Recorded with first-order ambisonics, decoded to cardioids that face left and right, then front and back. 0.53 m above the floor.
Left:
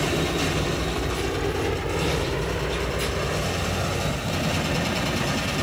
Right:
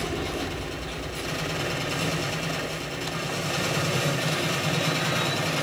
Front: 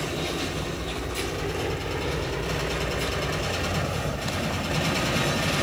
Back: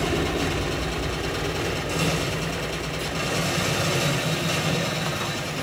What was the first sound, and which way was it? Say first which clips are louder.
A helicopter: left 5 dB, back 4 dB; 155° left.